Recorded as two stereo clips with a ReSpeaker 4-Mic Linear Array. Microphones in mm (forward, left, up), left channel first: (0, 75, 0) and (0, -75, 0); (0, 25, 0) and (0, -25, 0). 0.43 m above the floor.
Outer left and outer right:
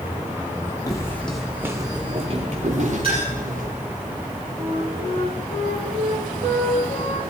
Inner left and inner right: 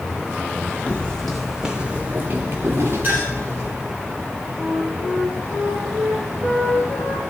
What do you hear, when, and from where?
0.9 s footsteps: 25° left (ahead or behind), 1.4 m; by 3.7 s 65° right (ahead or behind), 3 m
3.0 s a clink: 40° right (ahead or behind), 7 m
4.6 s a flute: 50° right (ahead or behind), 7 m